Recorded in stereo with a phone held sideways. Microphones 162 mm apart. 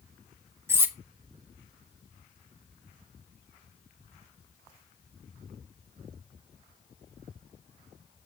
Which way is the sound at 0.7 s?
15° right (ahead or behind).